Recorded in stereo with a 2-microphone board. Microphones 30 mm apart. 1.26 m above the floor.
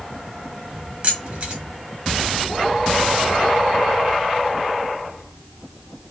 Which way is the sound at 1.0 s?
40° right (ahead or behind).